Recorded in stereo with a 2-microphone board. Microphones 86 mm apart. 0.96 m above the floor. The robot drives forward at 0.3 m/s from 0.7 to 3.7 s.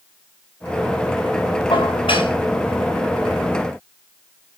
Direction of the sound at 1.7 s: 90° left.